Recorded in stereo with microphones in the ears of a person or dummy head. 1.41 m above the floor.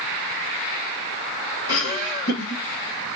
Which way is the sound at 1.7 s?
60° left (ahead or behind).